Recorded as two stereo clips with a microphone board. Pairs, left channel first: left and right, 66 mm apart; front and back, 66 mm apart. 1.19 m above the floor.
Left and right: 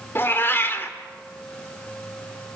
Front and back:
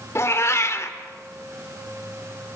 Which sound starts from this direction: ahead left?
A cat meowing, at 0.1 s.